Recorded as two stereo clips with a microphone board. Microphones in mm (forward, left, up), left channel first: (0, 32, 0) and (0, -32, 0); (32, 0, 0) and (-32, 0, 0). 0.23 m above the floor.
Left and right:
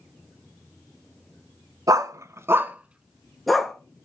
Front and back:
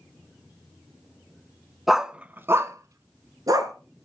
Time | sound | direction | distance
1.9 | a dog barking | 95° right | 0.7 m